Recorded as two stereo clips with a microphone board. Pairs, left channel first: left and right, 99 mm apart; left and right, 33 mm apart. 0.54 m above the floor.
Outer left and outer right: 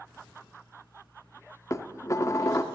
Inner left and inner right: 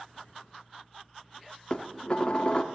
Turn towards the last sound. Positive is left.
turn(degrees=30)  # may be behind; listen again after turning